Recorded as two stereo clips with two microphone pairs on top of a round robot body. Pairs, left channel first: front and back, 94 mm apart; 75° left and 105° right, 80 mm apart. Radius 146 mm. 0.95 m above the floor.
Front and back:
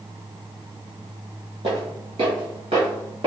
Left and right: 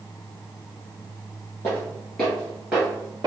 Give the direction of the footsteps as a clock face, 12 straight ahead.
7 o'clock.